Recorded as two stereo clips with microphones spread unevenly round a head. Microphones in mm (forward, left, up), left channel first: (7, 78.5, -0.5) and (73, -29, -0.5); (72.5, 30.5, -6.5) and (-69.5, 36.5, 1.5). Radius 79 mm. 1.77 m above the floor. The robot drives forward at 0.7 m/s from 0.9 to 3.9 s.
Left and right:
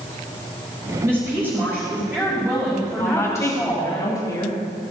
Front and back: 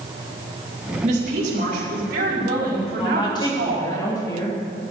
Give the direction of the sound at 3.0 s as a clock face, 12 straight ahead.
10 o'clock.